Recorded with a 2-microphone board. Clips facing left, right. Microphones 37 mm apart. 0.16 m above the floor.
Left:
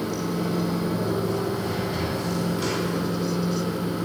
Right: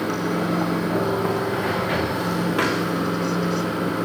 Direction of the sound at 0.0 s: 60° right (ahead or behind).